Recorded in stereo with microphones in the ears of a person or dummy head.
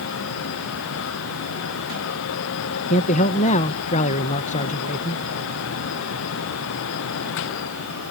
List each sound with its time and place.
2.9 s a man speaking: 35° left (ahead or behind)